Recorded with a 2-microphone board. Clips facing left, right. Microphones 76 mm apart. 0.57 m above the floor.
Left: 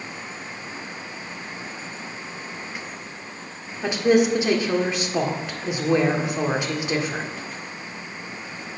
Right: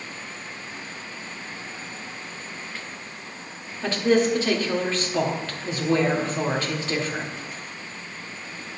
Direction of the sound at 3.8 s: 15° left (ahead or behind).